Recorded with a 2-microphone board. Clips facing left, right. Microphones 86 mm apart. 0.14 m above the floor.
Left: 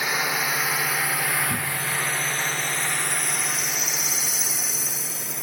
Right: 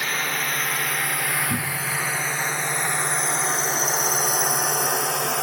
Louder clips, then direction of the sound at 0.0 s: Left 1 dB; 10° left (ahead or behind).